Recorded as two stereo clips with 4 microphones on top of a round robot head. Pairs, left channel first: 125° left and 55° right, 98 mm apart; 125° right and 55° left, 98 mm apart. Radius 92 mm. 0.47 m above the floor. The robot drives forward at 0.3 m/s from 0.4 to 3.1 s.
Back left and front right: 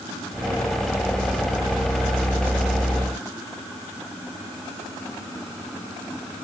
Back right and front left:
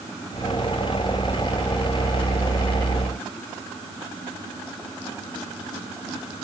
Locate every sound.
Only background noise.